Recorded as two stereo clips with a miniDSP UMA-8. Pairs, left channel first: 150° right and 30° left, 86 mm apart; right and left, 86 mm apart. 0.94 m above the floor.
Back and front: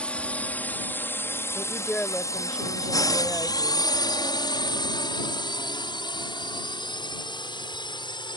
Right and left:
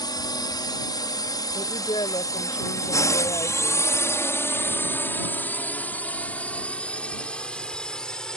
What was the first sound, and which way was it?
A drone, 75° right.